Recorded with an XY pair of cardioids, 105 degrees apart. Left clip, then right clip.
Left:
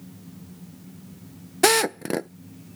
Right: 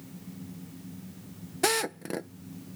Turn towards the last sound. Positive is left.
turn(degrees=50)